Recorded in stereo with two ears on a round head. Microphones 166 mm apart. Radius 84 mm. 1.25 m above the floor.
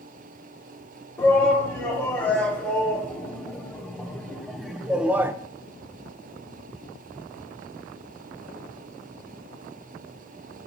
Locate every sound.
1.2 s a shout: 10° left (ahead or behind), 3.5 m; by 5.3 s 15° right (ahead or behind), 0.6 m